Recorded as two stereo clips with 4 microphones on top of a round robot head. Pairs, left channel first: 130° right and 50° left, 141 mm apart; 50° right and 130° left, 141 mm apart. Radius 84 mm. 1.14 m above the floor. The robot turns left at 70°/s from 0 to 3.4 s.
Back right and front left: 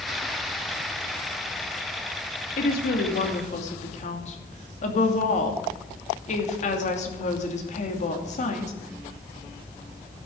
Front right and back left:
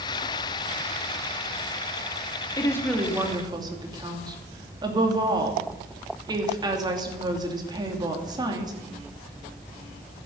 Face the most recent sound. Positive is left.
turn(degrees=-165)